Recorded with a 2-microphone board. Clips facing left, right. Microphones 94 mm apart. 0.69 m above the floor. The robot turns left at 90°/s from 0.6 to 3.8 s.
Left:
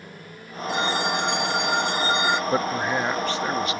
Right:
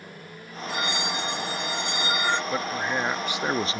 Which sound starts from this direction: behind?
A phone ringing, at 0.7 s.